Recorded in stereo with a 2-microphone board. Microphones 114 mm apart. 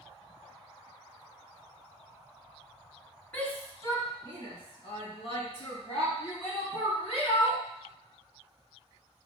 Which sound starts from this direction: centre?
A shout, at 3.3 s.